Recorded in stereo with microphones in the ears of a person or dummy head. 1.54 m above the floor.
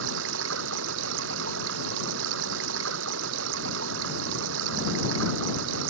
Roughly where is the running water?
Right.